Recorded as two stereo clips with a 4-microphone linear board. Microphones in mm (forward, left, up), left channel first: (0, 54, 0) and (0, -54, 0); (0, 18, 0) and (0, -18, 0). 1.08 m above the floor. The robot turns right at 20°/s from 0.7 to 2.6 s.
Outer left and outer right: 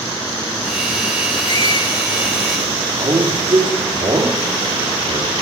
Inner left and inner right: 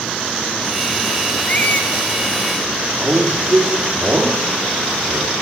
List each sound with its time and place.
1.5 s a squeak: 45° left (ahead or behind), 1.0 m
3.0 s a man speaking: 50° right (ahead or behind), 2.5 m